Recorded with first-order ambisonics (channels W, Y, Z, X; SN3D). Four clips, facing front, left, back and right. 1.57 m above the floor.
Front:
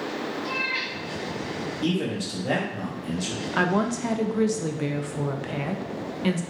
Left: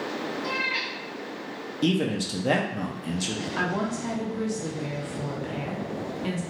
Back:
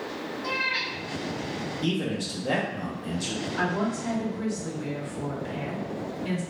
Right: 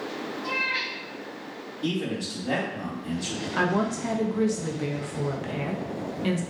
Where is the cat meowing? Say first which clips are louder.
Right 2 dB, back 2 dB; 145° left, 0.9 m.